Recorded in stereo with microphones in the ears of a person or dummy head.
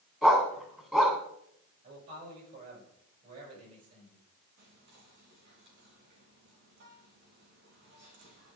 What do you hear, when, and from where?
0.2 s a dog barking: centre (ahead or behind), 2 m
1.8 s a man speaking: 45° right (ahead or behind), 7 m
4.6 s whispering: 65° right (ahead or behind), 3 m